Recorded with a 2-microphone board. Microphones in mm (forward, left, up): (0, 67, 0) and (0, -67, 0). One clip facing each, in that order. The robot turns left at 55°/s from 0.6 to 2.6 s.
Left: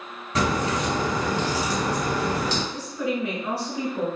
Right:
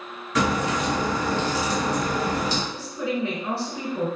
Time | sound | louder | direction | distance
0.3 | a crack | right 1 dB | 30° left (ahead or behind) | 1.3 m
2.7 | a woman speaking | left 1 dB | 30° right (ahead or behind) | 1.2 m